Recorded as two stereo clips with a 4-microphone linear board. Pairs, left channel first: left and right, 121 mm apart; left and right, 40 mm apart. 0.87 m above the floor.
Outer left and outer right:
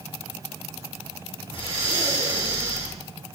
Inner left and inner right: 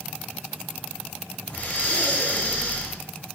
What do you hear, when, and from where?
1.5 s breathing: 50° left (ahead or behind), 5 m